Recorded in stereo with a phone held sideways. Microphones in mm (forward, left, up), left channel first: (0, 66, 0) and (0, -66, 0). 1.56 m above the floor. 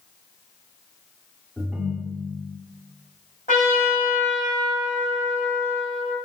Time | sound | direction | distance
1.6 | a ringtone | 5° right (ahead or behind) | 1.9 m
3.5 | a trumpet | 85° left | 4.5 m